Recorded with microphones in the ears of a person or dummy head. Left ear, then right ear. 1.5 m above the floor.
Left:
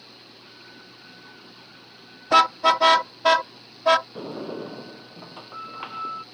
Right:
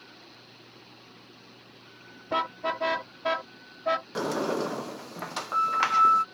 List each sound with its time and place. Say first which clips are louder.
2.3 s a car horn: left 12 dB; 55° left (ahead or behind); by 4.0 s 50° left (ahead or behind)
4.2 s a sliding door: right 5 dB; 60° right (ahead or behind)